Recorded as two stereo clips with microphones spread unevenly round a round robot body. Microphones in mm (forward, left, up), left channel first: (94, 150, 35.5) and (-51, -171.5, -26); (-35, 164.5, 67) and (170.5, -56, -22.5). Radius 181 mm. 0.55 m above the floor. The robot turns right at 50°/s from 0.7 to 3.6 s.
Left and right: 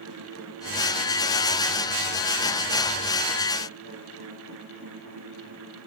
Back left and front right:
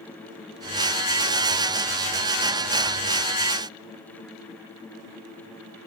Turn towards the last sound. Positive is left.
No sound to turn to.